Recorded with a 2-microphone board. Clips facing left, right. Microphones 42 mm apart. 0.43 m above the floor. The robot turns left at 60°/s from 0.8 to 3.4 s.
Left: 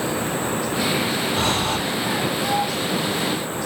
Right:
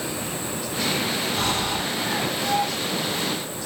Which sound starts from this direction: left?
Breathing, at 1.4 s.